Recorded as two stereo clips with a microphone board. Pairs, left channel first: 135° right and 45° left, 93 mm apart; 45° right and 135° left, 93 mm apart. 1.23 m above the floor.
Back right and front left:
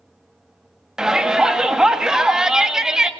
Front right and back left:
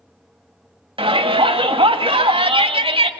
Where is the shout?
130° left, 2.0 m.